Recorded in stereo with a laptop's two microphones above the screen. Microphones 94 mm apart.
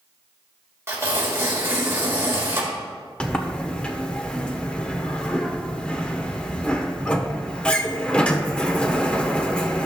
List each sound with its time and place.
0.9 s tearing paper: 30° right (ahead or behind), 1.4 m
3.2 s a sliding door: 10° left (ahead or behind), 1.0 m